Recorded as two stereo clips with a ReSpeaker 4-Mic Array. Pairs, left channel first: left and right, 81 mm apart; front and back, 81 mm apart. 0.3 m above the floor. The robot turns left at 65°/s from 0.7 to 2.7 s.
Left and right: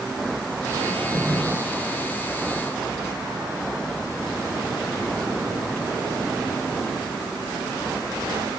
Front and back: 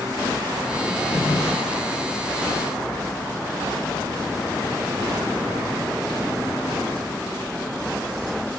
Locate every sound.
0.9 s a drawer: 55° left, 3.5 m; by 1.4 s 20° left, 3.5 m